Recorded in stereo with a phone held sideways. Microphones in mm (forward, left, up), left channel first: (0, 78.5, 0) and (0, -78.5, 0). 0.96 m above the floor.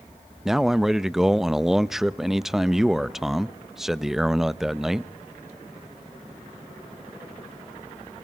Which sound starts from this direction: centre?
A man speaking, at 0.5 s.